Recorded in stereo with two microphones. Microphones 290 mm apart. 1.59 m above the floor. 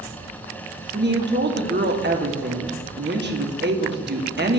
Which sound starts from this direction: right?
A woman speaking, at 0.9 s.